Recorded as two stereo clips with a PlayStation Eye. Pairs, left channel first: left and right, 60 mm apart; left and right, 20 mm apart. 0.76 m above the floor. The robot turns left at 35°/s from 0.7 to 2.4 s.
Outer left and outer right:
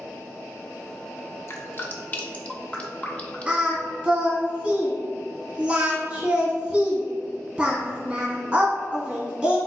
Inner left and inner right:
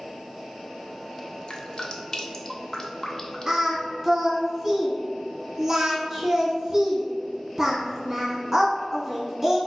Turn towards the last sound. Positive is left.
turn(degrees=-15)  # may be behind; listen again after turning